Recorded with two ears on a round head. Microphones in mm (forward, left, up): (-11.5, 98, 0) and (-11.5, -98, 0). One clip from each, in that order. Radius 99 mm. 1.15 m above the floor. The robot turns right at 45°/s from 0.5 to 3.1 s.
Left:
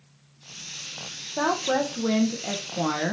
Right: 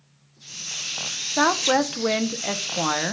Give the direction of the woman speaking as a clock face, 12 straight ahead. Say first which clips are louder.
Right 4 dB; 3 o'clock.